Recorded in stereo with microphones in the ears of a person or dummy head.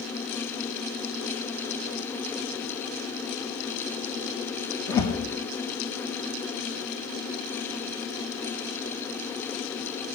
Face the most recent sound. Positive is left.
turn(degrees=20)  # may be behind; listen again after turning